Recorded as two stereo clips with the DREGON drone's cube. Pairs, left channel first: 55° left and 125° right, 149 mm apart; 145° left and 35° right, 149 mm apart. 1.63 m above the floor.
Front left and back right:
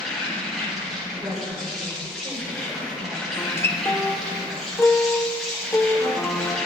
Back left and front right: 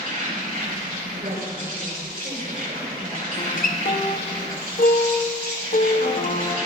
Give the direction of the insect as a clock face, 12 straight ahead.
1 o'clock.